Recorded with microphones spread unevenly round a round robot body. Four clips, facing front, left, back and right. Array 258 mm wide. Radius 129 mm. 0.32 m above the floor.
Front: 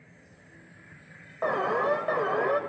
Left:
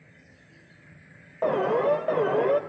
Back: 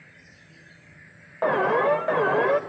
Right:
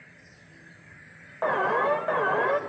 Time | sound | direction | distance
1.4 | an alarm | 135° left | 0.7 m